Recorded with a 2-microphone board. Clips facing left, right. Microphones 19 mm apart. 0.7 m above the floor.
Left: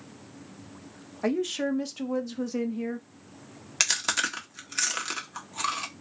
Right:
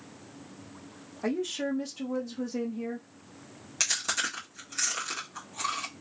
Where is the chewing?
30° left (ahead or behind), 1.2 m.